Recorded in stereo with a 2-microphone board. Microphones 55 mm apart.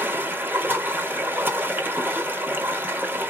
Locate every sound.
0.0 s running water: 35° right (ahead or behind), 1.0 m